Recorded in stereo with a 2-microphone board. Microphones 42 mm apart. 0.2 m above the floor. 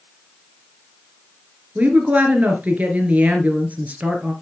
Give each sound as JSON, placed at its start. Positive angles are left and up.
{"t": 1.8, "sound": "a woman speaking", "side_deg": -35, "distance_m": 2.5}